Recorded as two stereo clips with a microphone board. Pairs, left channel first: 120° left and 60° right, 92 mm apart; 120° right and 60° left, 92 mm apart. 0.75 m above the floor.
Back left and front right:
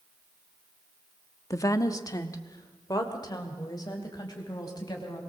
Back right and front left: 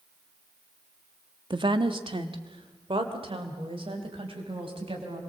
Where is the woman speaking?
70° left, 1.1 m; by 5.2 s 75° left, 5 m.